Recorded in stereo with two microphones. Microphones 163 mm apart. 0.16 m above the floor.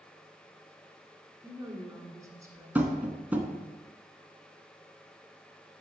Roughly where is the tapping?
Centre.